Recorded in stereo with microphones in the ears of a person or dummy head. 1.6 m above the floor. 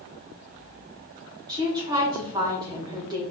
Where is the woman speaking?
20° right (ahead or behind), 1.7 m.